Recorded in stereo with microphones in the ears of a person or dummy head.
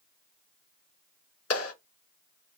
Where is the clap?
80° left, 3.5 m.